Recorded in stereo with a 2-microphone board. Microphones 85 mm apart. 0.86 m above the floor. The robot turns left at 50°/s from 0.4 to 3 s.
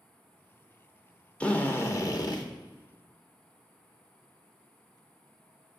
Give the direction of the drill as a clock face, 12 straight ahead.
6 o'clock.